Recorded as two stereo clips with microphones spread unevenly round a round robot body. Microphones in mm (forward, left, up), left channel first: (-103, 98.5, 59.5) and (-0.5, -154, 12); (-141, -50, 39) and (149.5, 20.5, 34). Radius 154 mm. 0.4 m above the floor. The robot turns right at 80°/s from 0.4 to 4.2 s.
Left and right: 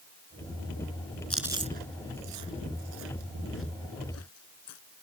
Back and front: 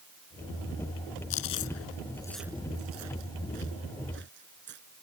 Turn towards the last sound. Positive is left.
turn(degrees=70)